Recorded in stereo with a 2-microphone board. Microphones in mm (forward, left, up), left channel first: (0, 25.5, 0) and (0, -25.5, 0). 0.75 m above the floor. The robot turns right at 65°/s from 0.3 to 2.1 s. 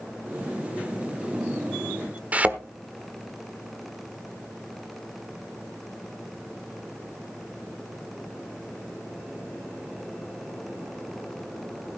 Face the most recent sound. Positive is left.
turn(degrees=-25)  # may be behind; listen again after turning